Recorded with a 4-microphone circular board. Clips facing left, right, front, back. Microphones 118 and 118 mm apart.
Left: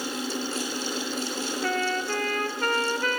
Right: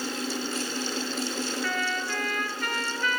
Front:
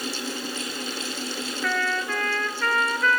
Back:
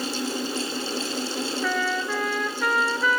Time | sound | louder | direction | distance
1.6 | a trumpet | left 3 dB, front 1 dB | 105° left | 1.3 m